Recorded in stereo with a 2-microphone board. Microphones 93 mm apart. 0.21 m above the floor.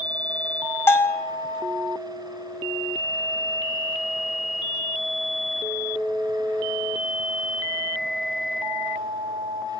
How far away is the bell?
About 1.6 m.